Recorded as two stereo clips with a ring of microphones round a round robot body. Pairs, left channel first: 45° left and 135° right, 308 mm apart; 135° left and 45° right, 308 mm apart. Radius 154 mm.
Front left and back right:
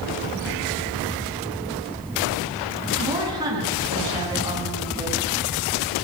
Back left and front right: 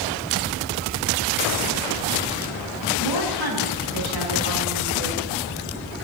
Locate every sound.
3.0 s a woman speaking: 60° right, 9.5 m